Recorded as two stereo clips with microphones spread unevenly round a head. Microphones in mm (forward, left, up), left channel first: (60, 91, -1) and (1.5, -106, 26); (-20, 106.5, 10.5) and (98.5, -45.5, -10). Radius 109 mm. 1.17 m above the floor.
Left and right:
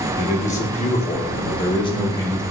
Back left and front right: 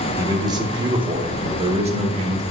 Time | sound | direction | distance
0.2 | a man speaking | 20° left | 2.5 m